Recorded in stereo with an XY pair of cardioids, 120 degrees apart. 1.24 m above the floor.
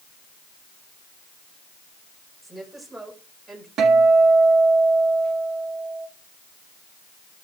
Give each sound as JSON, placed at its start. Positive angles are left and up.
{"t": 2.4, "sound": "a woman speaking", "azimuth_deg": -15, "distance_m": 5.0}
{"t": 3.8, "sound": "a guitar", "azimuth_deg": -60, "distance_m": 2.0}